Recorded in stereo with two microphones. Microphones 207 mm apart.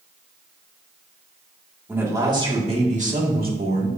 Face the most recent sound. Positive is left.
turn(degrees=-55)  # may be behind; listen again after turning